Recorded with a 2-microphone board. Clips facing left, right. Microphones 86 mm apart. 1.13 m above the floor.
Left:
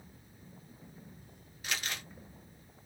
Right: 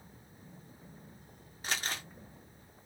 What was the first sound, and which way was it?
Crumpling, 35° right (ahead or behind).